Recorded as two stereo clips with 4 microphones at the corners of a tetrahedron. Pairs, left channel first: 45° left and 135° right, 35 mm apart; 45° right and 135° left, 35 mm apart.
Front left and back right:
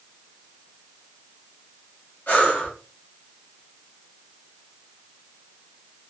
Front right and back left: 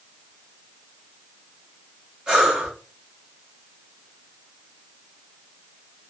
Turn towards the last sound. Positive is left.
turn(degrees=70)